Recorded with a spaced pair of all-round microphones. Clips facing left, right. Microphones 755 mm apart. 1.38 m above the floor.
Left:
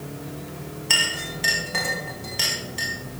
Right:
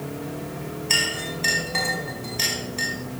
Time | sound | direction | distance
0.9 | a clink | 45° left (ahead or behind) | 1.6 m